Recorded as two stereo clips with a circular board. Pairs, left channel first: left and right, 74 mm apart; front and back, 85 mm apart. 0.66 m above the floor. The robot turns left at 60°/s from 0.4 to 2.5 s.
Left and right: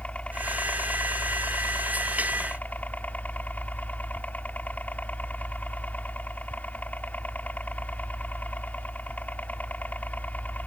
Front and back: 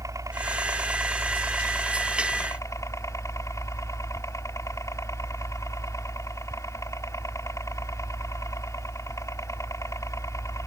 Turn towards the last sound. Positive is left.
turn(degrees=30)